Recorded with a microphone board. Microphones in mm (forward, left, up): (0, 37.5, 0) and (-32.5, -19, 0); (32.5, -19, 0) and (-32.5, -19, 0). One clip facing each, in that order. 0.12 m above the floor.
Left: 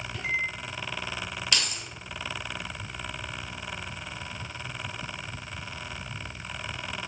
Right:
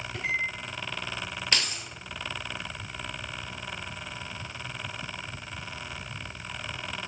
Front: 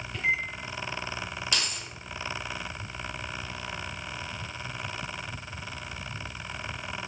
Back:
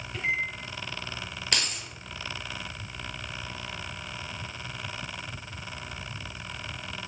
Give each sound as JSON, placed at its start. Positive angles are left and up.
{"t": 0.1, "sound": "a microwave", "azimuth_deg": -100, "distance_m": 3.0}
{"t": 1.5, "sound": "keys jangling", "azimuth_deg": -170, "distance_m": 1.8}